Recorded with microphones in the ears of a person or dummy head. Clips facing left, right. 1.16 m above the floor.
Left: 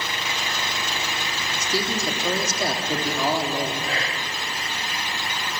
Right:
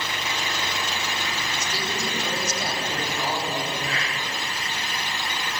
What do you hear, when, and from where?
1.6 s a man speaking: 55° left (ahead or behind), 3 m
3.9 s whispering: 30° left (ahead or behind), 0.8 m